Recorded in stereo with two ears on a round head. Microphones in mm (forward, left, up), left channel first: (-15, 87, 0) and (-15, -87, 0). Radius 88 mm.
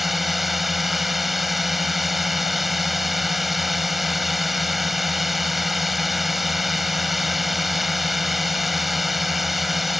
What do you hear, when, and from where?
0.0 s a drone: centre (ahead or behind)